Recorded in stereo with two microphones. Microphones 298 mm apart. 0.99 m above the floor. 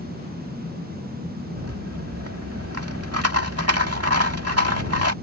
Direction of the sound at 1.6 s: 55° right (ahead or behind).